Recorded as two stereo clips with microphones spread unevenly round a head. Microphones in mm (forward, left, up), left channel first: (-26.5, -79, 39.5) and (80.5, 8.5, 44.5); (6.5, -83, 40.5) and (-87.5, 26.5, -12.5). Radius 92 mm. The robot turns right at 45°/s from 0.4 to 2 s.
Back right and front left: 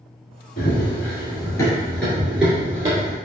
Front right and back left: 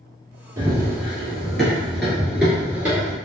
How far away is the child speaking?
I don't hear a child speaking.